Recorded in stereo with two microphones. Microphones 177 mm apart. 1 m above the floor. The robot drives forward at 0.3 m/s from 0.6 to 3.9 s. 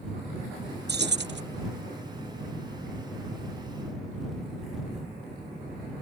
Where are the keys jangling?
70° right (ahead or behind); by 1.4 s 85° right.